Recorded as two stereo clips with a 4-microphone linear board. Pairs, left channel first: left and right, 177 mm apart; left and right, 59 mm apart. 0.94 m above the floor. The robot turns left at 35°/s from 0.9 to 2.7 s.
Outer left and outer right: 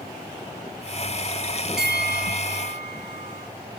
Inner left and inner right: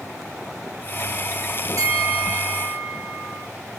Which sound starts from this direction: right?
A bell, at 1.8 s.